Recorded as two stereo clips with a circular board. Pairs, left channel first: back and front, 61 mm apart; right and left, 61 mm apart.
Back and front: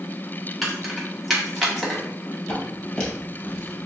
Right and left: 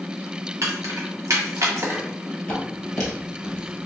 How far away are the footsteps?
About 1.9 m.